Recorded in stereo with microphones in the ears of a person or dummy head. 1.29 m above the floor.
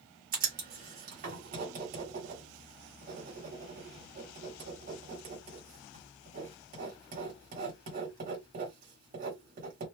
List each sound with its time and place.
0.3 s writing: 45° right (ahead or behind), 1.6 m